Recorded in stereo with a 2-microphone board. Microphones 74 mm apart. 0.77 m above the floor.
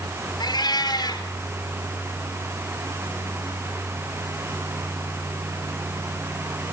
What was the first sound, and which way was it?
A cat meowing, 80° left.